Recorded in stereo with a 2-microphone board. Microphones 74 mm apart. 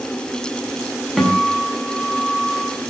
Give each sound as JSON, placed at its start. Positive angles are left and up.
{"t": 1.2, "sound": "a guitar", "side_deg": 0, "distance_m": 6.5}